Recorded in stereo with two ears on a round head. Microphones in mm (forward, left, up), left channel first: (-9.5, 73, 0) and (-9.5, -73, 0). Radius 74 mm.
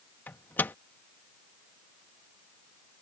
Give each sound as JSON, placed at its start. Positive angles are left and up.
{"t": 0.3, "sound": "a microwave", "side_deg": 15}